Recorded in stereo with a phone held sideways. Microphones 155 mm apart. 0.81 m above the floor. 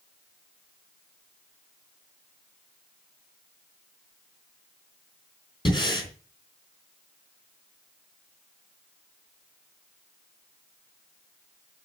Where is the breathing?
30° left (ahead or behind), 3.5 m.